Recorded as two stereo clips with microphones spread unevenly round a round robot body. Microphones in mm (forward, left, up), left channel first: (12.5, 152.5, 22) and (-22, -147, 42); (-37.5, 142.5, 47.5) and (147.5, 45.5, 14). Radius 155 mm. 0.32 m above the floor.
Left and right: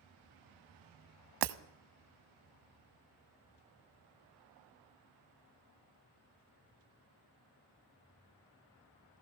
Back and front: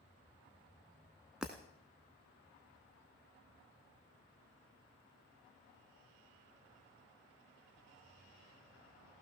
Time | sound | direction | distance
1.4 | breaking glass | 115° right | 0.6 m